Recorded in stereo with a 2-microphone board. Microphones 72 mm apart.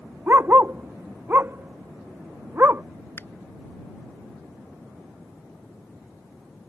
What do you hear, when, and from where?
0.3 s a dog barking: 30° right (ahead or behind)
3.2 s a finger snap: 35° left (ahead or behind)